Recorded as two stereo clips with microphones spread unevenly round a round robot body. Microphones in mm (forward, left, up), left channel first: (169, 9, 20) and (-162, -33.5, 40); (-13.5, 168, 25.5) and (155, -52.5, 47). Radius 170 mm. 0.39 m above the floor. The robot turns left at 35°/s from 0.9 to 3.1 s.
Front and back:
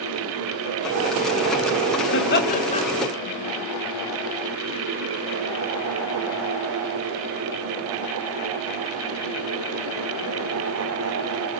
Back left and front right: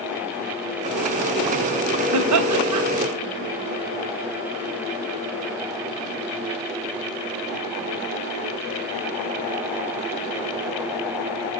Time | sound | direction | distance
2.1 | laughter | 40° right | 2.5 m